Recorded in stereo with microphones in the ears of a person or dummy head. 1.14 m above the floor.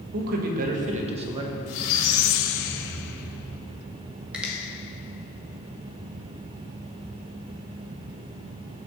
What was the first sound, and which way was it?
A man speaking, 60° right (ahead or behind).